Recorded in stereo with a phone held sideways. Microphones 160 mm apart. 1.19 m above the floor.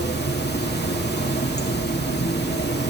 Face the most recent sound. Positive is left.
turn(degrees=80)